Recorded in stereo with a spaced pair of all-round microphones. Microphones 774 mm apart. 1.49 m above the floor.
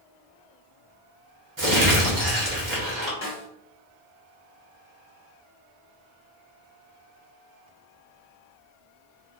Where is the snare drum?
45° left (ahead or behind), 1.0 m.